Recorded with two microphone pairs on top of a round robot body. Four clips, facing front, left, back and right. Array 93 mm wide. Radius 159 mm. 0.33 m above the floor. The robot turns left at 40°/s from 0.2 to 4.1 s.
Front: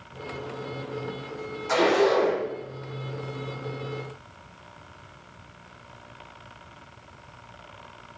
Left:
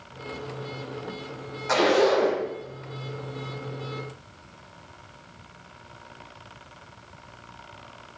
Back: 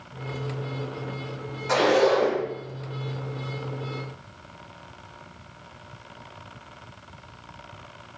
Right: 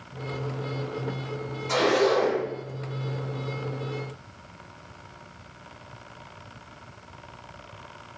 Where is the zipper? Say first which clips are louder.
Left 2 dB, back 1 dB; 110° left, 2.0 m; by 2.4 s 80° left, 2.0 m.